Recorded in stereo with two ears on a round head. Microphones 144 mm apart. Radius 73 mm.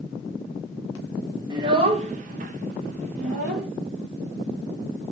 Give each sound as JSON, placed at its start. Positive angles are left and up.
{"t": 1.5, "sound": "a child speaking", "side_deg": -25, "distance_m": 0.7}